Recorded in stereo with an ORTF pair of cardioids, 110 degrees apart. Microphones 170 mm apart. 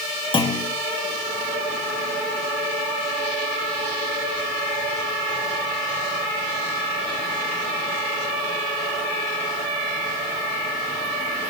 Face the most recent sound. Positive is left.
turn(degrees=30)